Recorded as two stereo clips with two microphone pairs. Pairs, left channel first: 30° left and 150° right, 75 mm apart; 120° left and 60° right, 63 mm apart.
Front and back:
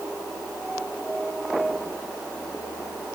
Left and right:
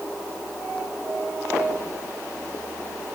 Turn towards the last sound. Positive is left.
No sound to turn to.